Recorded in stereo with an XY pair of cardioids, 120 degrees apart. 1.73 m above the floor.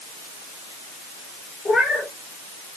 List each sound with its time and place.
1.6 s a cat meowing: 20° left, 3.5 m